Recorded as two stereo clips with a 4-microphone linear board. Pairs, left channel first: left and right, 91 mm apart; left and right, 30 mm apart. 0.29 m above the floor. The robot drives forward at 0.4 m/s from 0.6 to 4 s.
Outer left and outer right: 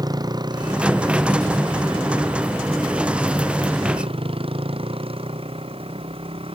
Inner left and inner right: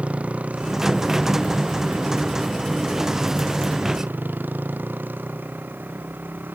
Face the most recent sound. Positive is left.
turn(degrees=-85)